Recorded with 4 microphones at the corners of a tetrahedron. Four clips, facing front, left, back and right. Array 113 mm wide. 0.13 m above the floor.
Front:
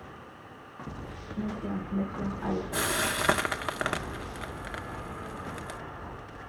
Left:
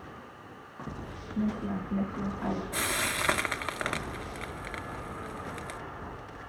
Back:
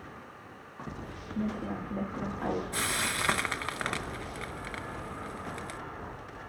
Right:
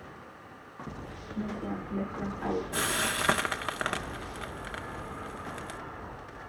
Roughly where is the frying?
Ahead right.